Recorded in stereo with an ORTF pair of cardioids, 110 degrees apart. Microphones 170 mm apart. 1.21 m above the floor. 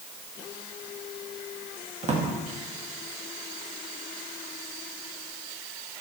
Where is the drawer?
35° right, 1.1 m.